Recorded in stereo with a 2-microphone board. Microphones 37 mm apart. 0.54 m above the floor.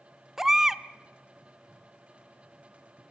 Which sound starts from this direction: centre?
A baby crying, at 0.4 s.